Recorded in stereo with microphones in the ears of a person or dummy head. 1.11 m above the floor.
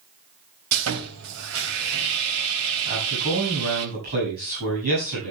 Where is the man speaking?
50° right (ahead or behind), 7.5 m.